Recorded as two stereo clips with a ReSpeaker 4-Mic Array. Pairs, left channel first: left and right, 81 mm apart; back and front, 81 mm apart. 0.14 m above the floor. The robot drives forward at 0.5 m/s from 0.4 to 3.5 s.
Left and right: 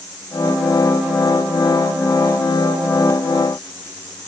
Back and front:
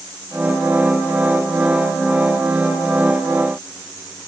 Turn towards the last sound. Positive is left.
No sound to turn to.